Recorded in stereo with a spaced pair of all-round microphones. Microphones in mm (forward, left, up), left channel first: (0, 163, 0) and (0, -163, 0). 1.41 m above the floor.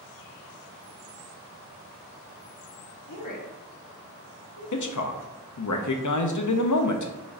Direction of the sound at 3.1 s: 70° left (ahead or behind).